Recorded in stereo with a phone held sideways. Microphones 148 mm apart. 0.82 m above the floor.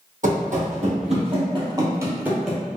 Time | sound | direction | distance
0.2 | running footsteps | 60° right (ahead or behind) | 1.6 m